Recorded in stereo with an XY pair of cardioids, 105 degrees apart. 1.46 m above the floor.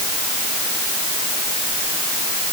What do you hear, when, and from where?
Only background noise.